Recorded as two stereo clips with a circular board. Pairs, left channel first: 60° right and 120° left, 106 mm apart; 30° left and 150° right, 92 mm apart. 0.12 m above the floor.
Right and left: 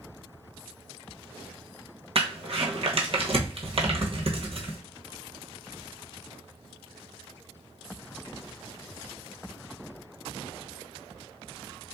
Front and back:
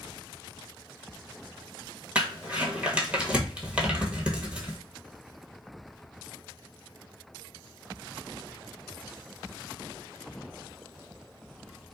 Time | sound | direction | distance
2.1 | crumpling | 135° left | 0.9 m